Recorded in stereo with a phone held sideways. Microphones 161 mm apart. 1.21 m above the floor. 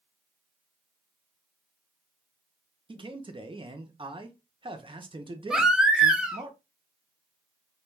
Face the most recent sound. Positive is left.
turn(degrees=-5)  # may be behind; listen again after turning